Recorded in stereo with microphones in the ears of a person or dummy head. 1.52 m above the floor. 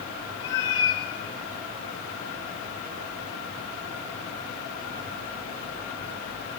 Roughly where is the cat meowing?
Centre.